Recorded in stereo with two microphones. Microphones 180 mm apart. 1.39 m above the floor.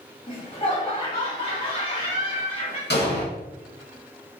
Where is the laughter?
30° left (ahead or behind), 1.7 m.